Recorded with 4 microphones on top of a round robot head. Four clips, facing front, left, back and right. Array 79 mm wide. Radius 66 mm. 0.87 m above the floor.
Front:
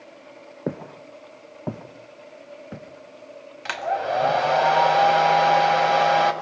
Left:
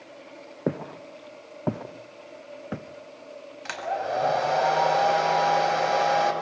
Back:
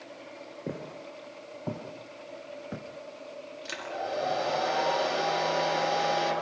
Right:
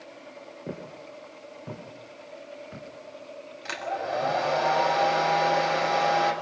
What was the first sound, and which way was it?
Footsteps, 55° left.